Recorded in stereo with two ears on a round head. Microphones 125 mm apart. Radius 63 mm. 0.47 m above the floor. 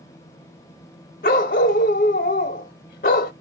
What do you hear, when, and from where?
1.2 s a dog barking: 70° left (ahead or behind), 0.8 m